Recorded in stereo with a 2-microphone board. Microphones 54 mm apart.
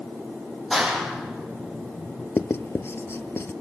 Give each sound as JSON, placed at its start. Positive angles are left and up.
{"t": 0.7, "sound": "a clap", "side_deg": 0, "distance_m": 5.0}
{"t": 2.4, "sound": "writing", "side_deg": 55, "distance_m": 0.8}